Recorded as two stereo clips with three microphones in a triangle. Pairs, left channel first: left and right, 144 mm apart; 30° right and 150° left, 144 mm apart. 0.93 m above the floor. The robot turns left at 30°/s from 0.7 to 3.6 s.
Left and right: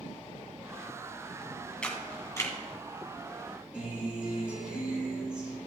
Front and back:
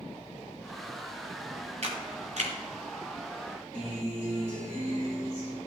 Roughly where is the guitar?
Behind.